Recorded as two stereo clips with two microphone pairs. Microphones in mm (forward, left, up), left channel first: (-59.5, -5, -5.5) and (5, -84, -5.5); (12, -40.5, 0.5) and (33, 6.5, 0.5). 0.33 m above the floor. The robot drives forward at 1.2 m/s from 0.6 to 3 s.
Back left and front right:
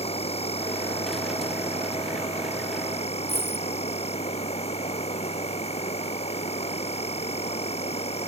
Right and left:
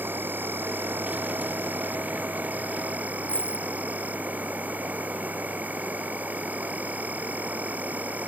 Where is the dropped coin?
175° left.